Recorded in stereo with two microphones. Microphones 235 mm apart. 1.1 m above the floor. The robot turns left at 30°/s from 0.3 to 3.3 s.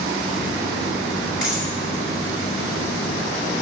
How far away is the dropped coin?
About 4 m.